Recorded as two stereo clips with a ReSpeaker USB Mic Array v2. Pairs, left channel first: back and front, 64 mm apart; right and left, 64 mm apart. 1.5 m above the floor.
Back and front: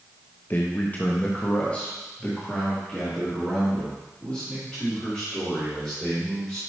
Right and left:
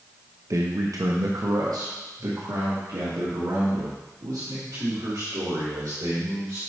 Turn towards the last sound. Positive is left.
turn(degrees=105)